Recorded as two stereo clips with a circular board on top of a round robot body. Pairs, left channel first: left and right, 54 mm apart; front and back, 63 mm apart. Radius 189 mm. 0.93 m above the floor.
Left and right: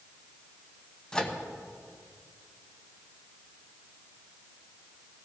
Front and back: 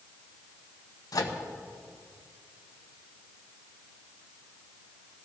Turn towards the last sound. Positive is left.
turn(degrees=10)